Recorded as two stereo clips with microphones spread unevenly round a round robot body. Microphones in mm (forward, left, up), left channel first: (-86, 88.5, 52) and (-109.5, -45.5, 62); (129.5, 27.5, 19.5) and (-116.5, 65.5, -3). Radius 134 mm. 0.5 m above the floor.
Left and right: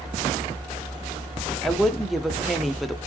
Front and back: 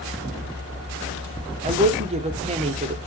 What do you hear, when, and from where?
1.6 s a woman speaking: 165° left, 1.0 m